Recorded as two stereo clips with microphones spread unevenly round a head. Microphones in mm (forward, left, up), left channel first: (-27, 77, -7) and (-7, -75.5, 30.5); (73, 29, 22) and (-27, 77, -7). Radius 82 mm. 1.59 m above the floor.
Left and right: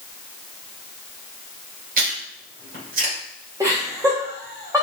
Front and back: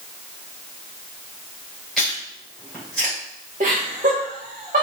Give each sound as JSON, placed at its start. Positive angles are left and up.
{"t": 2.0, "sound": "chewing", "azimuth_deg": -110, "distance_m": 3.0}
{"t": 3.6, "sound": "laughter", "azimuth_deg": -155, "distance_m": 1.8}